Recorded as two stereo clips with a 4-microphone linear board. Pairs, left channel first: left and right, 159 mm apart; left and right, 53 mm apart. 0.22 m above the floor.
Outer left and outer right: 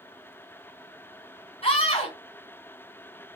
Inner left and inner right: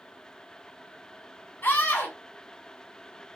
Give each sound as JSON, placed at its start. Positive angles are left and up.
{"t": 1.6, "sound": "a scream", "side_deg": 35, "distance_m": 1.8}